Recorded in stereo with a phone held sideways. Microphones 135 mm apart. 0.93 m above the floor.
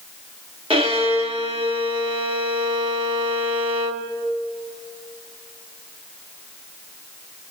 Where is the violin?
45° right (ahead or behind), 2.0 m.